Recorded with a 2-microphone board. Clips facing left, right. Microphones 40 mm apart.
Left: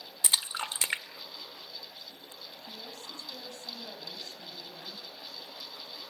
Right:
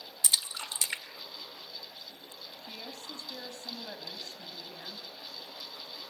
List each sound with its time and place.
0.2 s a splash: 35° left (ahead or behind), 1.6 m
2.6 s a woman speaking: 65° right (ahead or behind), 3 m